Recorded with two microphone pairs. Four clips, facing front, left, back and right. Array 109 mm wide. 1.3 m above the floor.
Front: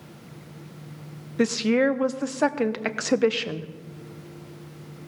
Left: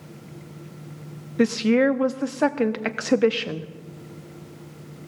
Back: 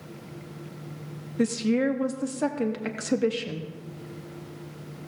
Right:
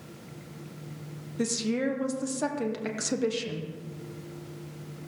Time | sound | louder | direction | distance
1.4 | a woman speaking | left 10 dB, front 3 dB | 45° left | 0.7 m